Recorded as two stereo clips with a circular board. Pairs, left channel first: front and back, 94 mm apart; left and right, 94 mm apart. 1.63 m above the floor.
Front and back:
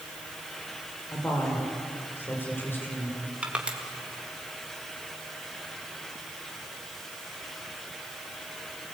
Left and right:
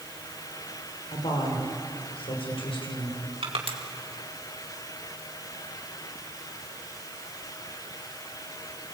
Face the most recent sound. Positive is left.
turn(degrees=-100)